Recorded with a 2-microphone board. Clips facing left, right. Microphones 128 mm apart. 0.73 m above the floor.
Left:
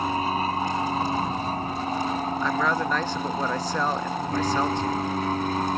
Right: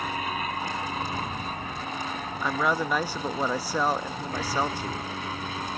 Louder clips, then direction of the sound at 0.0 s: Left 6 dB; 30° left (ahead or behind).